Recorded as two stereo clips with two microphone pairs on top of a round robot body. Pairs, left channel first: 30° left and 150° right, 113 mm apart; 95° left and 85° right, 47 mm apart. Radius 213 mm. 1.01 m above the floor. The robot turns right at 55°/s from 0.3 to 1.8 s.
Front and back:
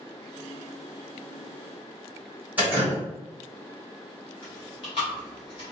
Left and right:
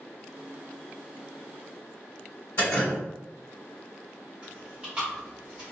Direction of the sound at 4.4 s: 15° right.